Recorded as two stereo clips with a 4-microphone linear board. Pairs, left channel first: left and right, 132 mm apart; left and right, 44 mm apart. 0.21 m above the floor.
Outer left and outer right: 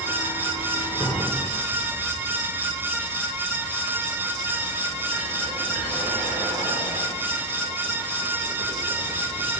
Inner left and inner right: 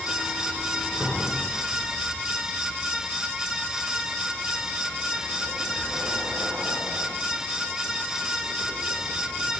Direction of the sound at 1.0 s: 15° right (ahead or behind).